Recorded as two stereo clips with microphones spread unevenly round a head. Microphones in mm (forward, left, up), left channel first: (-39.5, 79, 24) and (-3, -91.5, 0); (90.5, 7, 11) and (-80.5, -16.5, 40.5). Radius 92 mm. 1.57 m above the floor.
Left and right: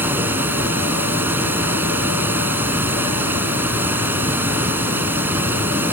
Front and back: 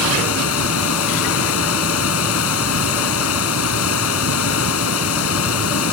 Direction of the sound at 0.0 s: 5° left.